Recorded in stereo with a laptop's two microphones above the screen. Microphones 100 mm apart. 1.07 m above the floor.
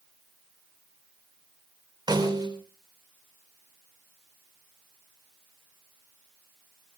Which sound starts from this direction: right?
A snare drum, at 2.1 s.